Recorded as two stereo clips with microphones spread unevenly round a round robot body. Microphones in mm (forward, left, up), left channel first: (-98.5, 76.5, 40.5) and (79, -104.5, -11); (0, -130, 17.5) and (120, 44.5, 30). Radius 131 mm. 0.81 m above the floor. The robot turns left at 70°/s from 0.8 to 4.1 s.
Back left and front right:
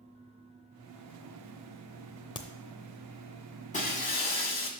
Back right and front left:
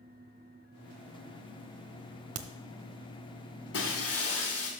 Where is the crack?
70° left, 0.6 m; by 2.5 s 60° left, 0.6 m.